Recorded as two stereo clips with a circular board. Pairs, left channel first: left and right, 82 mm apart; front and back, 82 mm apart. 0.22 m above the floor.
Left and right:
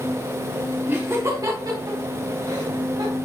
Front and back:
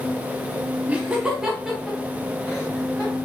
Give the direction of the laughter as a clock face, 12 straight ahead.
4 o'clock.